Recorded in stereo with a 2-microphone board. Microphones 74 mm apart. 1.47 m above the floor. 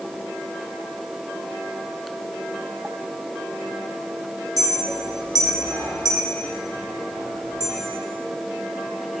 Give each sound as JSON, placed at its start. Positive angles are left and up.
{"t": 4.6, "sound": "a clink", "side_deg": -65, "distance_m": 1.7}